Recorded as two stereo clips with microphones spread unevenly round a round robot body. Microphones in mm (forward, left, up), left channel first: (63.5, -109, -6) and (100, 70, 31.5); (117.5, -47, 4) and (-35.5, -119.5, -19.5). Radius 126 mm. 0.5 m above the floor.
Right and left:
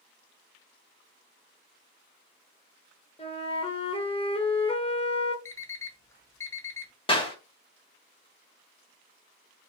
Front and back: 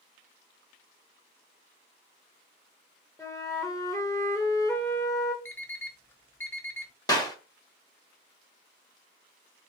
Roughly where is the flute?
Ahead right.